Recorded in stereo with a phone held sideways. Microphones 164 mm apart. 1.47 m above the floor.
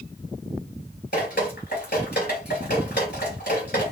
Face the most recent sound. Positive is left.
turn(degrees=85)